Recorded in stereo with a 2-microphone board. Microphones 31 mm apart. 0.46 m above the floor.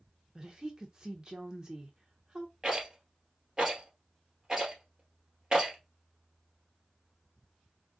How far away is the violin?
I don't hear a violin.